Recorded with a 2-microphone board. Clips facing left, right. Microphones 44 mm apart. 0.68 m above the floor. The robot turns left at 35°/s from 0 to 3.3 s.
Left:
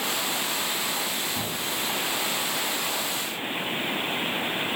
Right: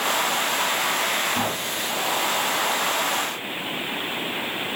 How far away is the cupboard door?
About 3 m.